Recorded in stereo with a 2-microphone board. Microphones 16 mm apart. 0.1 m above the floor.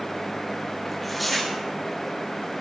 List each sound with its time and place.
0.8 s tearing paper: 10° left (ahead or behind), 4 m